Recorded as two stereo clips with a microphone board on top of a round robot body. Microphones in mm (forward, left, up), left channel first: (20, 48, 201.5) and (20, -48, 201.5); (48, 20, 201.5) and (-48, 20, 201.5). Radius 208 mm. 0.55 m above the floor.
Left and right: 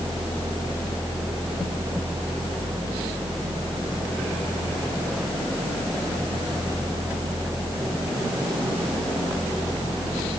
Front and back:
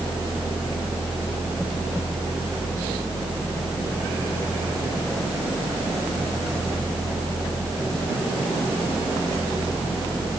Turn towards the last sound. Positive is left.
No sound to turn to.